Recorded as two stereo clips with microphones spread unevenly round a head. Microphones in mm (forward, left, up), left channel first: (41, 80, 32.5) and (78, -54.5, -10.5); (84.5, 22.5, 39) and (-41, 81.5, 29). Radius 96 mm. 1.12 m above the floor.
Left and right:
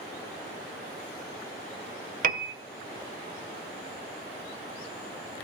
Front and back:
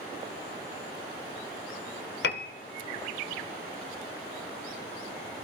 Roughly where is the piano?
Ahead right.